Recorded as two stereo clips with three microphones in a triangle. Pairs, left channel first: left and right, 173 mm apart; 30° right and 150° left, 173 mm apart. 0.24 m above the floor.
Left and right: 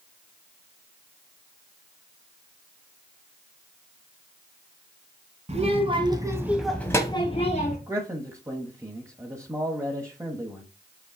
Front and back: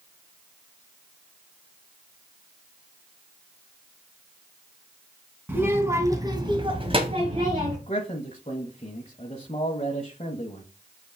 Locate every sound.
5.5 s a child speaking: 135° right, 2 m; by 7.8 s 100° left, 1.6 m
7.9 s a man speaking: 30° right, 1.2 m